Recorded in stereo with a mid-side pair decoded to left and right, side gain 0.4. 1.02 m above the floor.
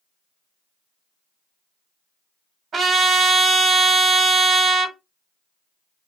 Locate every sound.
2.7 s a trumpet: 55° right, 1.2 m